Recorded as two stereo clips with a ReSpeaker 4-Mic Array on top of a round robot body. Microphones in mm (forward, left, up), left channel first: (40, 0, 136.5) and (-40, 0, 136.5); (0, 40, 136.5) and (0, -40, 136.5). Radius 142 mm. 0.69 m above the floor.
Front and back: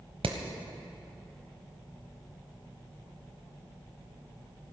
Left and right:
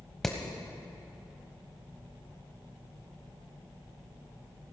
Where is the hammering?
175° left, 1.0 m.